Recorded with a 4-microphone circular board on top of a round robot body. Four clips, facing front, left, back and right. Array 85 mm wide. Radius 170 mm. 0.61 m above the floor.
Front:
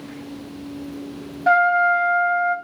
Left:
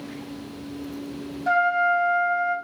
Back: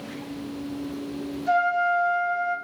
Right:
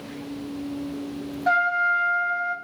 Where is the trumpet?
15° right, 2.5 m.